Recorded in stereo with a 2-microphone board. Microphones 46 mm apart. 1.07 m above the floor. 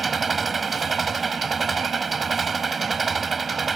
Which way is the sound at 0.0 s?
Centre (ahead or behind).